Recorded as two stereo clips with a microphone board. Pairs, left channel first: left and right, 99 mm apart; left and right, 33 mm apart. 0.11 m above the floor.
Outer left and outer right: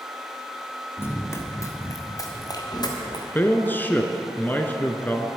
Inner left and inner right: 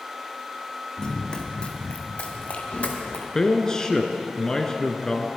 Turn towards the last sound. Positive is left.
turn(degrees=20)  # may be behind; listen again after turning